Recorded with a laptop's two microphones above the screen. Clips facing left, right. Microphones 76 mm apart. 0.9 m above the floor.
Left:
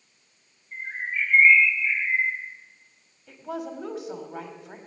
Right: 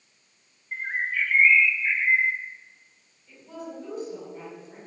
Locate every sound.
0.7 s a bird: 85° right, 1.0 m
3.3 s a woman speaking: 75° left (ahead or behind), 2.5 m